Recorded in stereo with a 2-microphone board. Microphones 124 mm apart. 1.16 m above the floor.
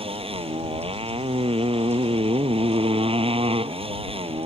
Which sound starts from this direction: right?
A motorcycle, at 0.0 s.